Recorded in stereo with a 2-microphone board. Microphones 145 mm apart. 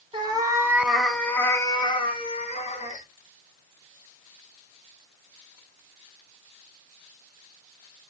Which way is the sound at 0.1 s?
35° right (ahead or behind).